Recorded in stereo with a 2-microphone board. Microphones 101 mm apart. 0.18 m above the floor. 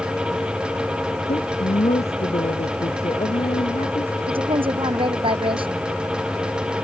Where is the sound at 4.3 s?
60° right (ahead or behind).